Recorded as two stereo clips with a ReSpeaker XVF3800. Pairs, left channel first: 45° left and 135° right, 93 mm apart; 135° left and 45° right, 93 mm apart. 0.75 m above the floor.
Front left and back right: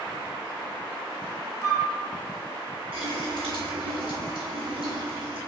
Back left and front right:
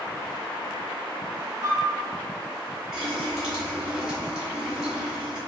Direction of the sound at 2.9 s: 125° right.